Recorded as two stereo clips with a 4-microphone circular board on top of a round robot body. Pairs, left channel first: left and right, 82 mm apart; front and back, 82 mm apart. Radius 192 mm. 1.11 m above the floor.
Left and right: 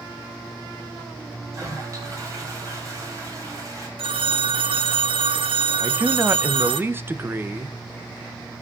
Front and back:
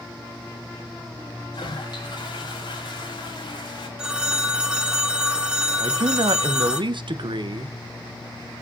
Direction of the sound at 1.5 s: 35° right.